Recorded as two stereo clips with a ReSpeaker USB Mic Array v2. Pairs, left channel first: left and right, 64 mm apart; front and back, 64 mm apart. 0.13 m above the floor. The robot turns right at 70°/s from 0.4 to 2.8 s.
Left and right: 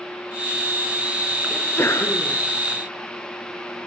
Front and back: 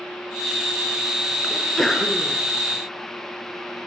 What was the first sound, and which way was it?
A sneeze, 65° left.